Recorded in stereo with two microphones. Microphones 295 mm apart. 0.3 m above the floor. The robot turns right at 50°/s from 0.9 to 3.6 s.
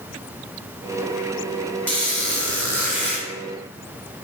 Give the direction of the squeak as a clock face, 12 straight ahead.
4 o'clock.